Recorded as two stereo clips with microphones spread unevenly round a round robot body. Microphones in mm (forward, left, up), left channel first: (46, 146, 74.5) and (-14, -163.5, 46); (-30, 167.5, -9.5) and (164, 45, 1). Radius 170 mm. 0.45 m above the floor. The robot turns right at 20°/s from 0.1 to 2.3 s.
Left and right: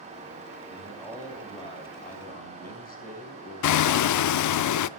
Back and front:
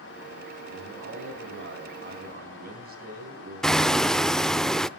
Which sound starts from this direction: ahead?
A man speaking, at 0.7 s.